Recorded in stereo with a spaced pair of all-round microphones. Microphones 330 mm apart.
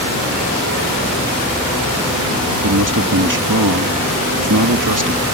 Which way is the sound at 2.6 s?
65° right (ahead or behind).